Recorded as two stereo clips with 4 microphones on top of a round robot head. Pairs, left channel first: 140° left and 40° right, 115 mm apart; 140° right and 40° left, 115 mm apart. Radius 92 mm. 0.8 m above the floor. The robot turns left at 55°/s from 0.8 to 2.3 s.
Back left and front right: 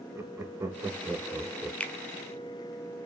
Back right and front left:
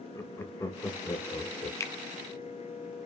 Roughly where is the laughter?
Right.